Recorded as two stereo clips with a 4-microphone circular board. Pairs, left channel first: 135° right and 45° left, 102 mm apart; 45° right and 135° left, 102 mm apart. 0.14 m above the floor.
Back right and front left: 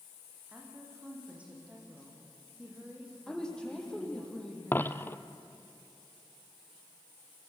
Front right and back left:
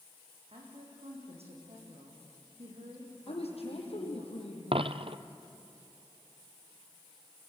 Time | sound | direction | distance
0.5 | a woman speaking | 125° left | 8 m
3.3 | a woman speaking | 50° right | 5 m
4.7 | a dropped coin | 155° left | 0.8 m